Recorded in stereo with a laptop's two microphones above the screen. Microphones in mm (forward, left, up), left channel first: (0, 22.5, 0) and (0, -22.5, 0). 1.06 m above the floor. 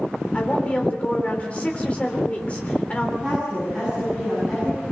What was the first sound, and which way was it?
A woman speaking, 25° left (ahead or behind).